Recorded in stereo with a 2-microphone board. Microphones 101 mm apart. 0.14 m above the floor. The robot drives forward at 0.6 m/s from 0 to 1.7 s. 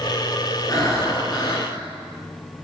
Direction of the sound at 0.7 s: 35° left (ahead or behind).